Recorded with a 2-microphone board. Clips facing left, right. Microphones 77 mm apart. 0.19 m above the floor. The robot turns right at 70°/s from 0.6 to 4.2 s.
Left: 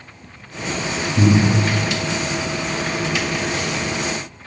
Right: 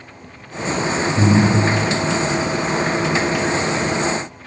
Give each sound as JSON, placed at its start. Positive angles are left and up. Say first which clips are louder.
{"t": 1.2, "sound": "breathing", "louder": "even", "side_deg": 50, "distance_m": 0.7}